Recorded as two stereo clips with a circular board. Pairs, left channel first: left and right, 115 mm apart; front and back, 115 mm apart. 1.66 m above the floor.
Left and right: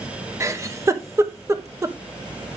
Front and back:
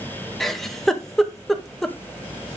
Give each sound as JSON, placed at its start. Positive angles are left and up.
{"t": 0.4, "sound": "a giggle", "azimuth_deg": -85, "distance_m": 0.9}